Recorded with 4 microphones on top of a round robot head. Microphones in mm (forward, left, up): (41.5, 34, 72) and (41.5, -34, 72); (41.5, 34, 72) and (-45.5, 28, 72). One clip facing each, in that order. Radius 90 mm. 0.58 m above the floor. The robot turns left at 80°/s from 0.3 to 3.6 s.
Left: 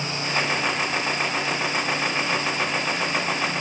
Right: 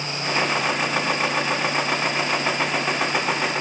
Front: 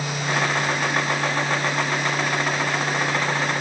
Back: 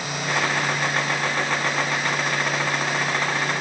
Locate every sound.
Only background noise.